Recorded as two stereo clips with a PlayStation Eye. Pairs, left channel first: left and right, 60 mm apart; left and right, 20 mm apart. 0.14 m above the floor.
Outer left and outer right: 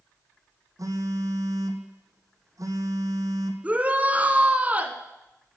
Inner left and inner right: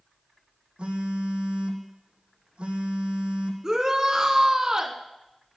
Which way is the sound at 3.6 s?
25° right (ahead or behind).